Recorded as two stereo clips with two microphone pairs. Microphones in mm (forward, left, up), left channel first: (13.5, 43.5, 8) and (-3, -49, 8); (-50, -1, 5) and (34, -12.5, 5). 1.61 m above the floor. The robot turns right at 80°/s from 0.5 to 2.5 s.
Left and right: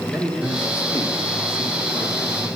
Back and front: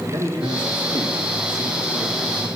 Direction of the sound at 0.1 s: 10° right.